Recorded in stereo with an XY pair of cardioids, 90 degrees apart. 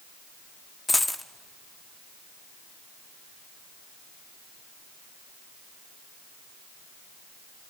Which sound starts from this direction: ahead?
A dropped coin, at 0.9 s.